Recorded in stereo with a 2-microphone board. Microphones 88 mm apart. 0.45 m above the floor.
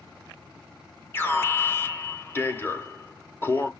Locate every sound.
1.1 s an alarm: 25° left (ahead or behind), 1.0 m